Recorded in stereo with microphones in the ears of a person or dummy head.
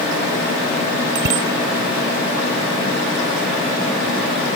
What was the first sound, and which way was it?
A bicycle bell, 65° right (ahead or behind).